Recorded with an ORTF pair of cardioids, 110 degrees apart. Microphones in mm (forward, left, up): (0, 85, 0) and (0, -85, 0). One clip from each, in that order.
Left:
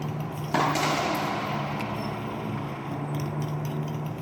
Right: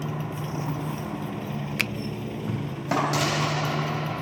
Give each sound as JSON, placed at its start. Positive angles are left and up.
{"t": 0.0, "sound": "a motorcycle", "azimuth_deg": -5}
{"t": 1.8, "sound": "a finger snap", "azimuth_deg": -70}